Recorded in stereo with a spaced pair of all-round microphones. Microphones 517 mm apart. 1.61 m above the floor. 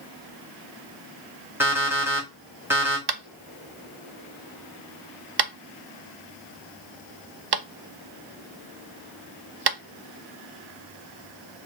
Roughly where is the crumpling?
No crumpling in this recording.